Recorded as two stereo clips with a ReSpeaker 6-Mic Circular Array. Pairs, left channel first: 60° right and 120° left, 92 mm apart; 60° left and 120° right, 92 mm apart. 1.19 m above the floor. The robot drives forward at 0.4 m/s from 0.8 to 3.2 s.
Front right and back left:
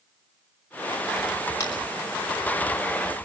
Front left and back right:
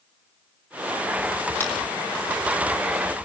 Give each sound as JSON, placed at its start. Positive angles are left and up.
{"t": 1.6, "sound": "a clap", "azimuth_deg": -5, "distance_m": 5.5}